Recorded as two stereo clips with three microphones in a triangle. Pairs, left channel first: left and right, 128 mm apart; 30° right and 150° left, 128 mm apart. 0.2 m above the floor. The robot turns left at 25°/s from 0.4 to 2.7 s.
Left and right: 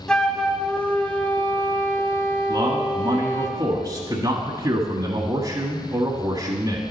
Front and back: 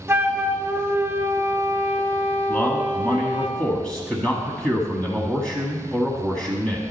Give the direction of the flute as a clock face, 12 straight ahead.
7 o'clock.